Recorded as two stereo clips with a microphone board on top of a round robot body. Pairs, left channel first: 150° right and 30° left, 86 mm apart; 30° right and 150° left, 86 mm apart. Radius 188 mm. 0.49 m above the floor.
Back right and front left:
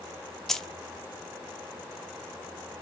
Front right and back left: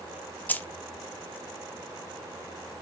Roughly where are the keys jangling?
Right.